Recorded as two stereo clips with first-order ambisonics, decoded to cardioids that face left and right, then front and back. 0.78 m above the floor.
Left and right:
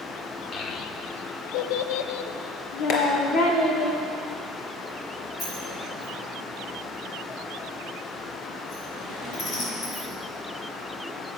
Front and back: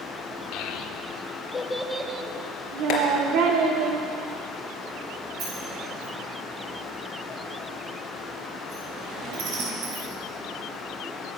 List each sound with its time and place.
0.5 s a child speaking: 30° left, 1.4 m; by 3.9 s 150° left, 2.5 m
2.9 s tapping: 45° left, 3.5 m
5.4 s a sliding door: 145° left, 5 m